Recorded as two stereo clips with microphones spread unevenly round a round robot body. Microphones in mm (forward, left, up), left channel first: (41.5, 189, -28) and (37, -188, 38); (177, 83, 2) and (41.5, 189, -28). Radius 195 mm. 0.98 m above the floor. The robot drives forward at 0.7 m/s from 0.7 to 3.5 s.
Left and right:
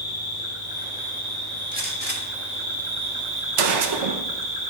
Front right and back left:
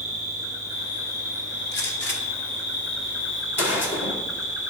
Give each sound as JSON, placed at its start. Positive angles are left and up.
{"t": 0.0, "sound": "an insect", "azimuth_deg": -20, "distance_m": 3.0}
{"t": 1.7, "sound": "a gunshot", "azimuth_deg": -20, "distance_m": 1.7}